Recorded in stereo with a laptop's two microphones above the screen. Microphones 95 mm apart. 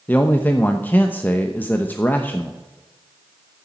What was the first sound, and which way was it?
A man speaking, 20° left (ahead or behind).